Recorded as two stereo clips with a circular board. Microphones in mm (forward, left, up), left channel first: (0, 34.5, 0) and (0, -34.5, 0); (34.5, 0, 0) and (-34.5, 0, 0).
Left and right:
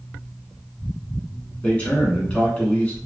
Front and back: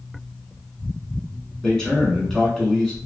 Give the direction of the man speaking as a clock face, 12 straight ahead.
10 o'clock.